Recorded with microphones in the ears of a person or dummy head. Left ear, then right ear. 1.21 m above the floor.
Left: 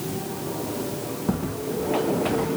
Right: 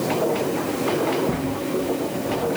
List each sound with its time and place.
1.3 s footsteps: 60° left (ahead or behind), 3.5 m; by 2.5 s 70° left (ahead or behind), 3.5 m